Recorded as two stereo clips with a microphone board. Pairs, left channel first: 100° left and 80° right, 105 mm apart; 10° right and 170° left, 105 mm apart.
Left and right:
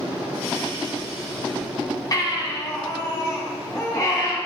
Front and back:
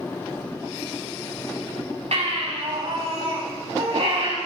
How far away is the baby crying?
About 5 m.